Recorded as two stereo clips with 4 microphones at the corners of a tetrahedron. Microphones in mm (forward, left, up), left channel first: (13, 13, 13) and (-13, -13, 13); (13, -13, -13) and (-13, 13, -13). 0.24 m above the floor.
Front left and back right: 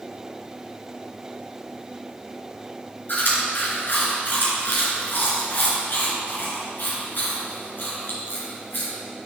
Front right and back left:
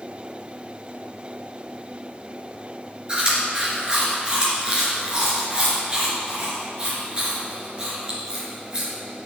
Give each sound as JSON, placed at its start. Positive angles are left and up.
{"t": 3.1, "sound": "chewing", "azimuth_deg": 70, "distance_m": 3.0}